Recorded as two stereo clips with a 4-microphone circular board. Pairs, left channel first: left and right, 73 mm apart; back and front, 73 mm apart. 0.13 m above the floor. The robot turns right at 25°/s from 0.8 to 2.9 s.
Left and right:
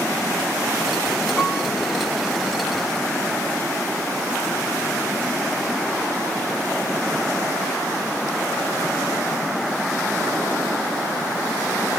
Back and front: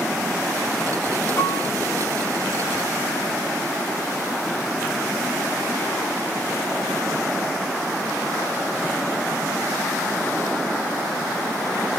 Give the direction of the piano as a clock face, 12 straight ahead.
7 o'clock.